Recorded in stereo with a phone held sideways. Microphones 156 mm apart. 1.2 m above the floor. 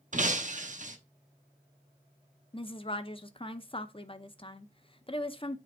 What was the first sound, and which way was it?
Breaking glass, 55° right (ahead or behind).